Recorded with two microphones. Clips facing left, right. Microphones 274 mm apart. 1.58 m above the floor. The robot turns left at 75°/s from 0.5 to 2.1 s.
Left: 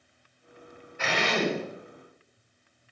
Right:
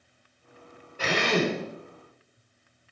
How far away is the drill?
About 5 m.